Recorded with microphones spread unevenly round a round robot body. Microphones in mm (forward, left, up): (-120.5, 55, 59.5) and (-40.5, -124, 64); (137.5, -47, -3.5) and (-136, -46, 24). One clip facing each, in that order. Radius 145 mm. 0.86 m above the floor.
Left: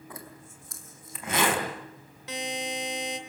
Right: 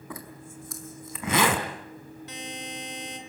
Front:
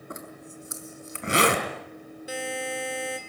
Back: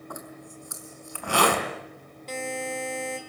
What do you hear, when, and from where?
0.1 s a zipper: 70° right, 4.5 m
2.3 s a buzzer: 80° left, 3 m